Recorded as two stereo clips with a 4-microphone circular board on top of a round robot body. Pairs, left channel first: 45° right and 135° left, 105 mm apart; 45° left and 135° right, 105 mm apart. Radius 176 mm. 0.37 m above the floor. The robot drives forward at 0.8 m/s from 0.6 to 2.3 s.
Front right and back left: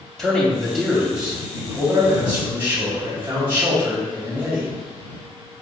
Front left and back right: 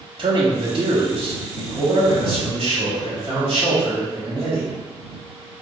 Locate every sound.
0.2 s a man speaking: 135° right, 1.0 m; by 4.7 s 170° right, 2.0 m